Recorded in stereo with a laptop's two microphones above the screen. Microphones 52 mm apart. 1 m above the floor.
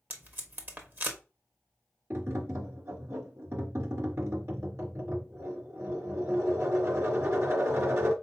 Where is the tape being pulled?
40° right (ahead or behind), 1.1 m.